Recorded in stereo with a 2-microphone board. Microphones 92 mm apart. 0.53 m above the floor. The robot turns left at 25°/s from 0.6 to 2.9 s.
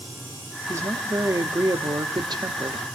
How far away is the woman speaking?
About 1.0 m.